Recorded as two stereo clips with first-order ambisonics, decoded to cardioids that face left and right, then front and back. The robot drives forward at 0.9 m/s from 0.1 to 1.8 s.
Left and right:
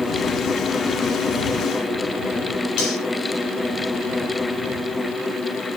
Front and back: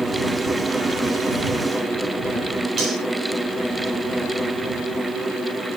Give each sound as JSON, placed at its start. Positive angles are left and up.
{"t": 2.8, "sound": "cutlery clinking", "azimuth_deg": 115, "distance_m": 6.5}